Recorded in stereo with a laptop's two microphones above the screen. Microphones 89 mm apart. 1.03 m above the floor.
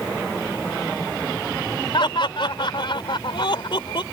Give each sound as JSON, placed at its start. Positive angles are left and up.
{"t": 1.9, "sound": "laughter", "side_deg": 65}